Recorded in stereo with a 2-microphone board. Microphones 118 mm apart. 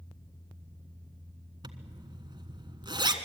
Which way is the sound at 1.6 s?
40° right (ahead or behind).